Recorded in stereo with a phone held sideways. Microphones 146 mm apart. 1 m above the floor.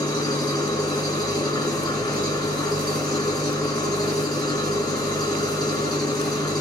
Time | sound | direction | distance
0.0 | an engine running | 30° left (ahead or behind) | 4 m